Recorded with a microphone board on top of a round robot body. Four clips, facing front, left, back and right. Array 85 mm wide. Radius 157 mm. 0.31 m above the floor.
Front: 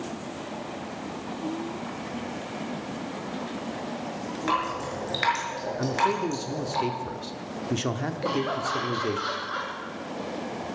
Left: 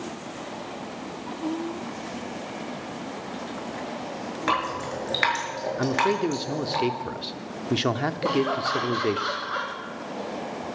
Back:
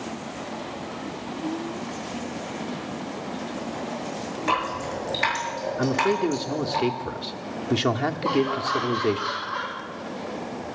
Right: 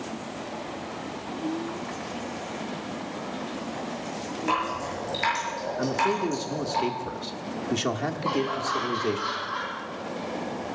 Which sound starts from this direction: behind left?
A man speaking, at 5.8 s.